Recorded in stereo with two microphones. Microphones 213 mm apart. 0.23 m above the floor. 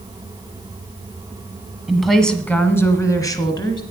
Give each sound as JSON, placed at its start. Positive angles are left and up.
{"t": 1.9, "sound": "a woman speaking", "side_deg": 0, "distance_m": 1.4}